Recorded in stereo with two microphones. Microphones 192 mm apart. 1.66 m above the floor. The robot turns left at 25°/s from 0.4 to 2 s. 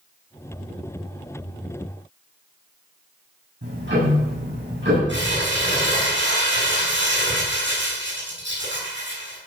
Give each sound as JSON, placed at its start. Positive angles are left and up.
{"t": 3.6, "sound": "ticking", "side_deg": -70, "distance_m": 8.5}
{"t": 5.1, "sound": "crumpling", "side_deg": -80, "distance_m": 8.5}